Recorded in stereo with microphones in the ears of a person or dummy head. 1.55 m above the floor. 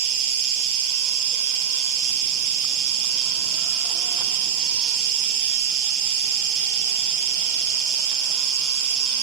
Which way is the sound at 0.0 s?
75° right (ahead or behind).